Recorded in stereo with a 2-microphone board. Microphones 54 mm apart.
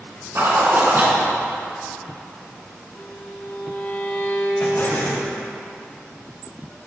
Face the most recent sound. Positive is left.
turn(degrees=50)  # may be behind; listen again after turning